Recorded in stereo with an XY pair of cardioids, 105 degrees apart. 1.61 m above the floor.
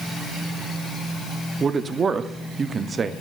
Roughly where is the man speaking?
Ahead right.